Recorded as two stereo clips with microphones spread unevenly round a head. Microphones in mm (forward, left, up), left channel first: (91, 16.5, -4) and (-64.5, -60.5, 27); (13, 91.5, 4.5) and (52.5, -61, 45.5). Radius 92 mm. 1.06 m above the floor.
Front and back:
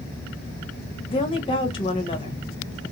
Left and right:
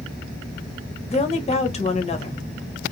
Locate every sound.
1.1 s a woman speaking: 75° left, 0.9 m